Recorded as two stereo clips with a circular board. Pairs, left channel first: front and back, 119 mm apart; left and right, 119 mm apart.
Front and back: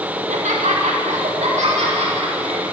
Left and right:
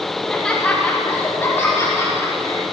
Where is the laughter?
175° left, 1.6 m; by 2.6 s 155° left, 4 m.